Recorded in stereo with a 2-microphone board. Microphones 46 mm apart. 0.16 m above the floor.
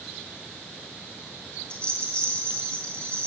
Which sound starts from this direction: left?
A rattle, at 1.7 s.